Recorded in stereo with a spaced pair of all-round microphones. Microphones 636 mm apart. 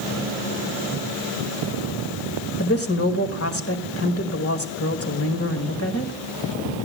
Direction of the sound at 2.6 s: 20° left (ahead or behind).